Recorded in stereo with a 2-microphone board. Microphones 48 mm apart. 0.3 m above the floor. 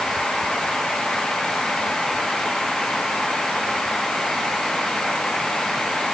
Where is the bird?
I don't hear a bird.